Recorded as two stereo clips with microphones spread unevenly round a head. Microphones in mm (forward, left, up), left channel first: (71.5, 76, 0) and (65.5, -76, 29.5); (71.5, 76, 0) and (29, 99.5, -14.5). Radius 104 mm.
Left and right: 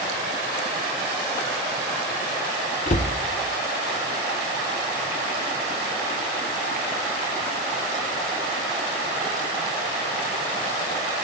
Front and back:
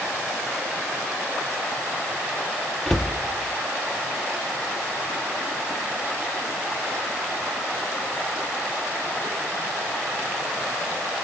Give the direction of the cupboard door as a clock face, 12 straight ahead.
11 o'clock.